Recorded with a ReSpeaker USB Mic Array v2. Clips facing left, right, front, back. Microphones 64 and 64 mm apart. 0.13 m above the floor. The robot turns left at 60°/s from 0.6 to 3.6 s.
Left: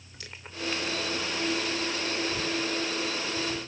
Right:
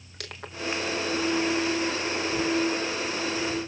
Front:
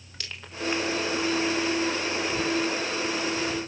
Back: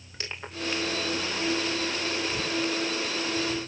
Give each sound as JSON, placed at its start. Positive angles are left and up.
{"t": 0.2, "sound": "crushing", "azimuth_deg": -115, "distance_m": 4.5}